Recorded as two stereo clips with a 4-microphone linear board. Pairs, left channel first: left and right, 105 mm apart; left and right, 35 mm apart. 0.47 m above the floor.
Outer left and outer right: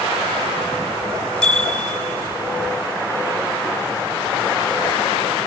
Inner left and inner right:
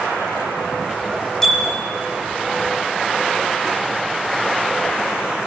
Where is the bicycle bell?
10° left (ahead or behind), 5 m.